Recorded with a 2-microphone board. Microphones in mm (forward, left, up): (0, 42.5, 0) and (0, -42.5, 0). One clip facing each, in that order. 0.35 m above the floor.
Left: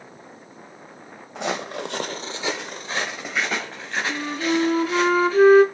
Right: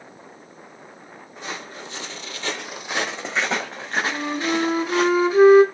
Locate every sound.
1.4 s footsteps: 70° left (ahead or behind), 1.1 m; by 5.1 s 40° right (ahead or behind), 3 m
4.1 s a flute: 15° right (ahead or behind), 1.3 m